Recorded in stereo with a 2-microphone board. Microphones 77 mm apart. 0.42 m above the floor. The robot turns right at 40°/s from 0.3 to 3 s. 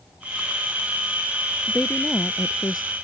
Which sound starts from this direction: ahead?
A woman speaking, at 1.7 s.